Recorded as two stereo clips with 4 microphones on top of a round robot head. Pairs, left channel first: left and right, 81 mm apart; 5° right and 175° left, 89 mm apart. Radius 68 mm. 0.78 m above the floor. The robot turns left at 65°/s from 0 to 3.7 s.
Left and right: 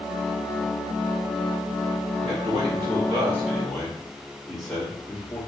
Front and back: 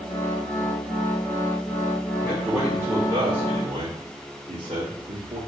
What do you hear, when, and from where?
2.2 s a man speaking: 90° right, 1.5 m; by 5.4 s 175° left, 1.5 m